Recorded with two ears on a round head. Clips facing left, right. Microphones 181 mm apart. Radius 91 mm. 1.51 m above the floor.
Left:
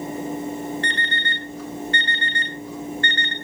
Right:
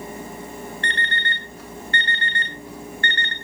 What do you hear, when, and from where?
0.8 s an alarm clock: 75° left (ahead or behind), 4 m